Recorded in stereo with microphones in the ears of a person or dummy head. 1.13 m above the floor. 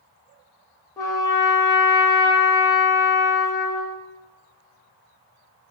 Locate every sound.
1.0 s a trumpet: 10° left (ahead or behind), 0.6 m